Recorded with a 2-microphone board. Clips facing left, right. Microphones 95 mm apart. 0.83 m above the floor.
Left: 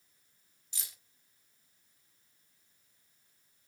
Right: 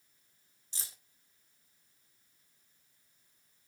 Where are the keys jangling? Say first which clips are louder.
Right 1 dB; 35° right (ahead or behind), 1.3 m.